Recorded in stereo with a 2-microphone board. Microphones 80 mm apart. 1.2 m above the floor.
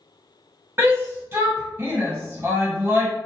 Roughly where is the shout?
Right.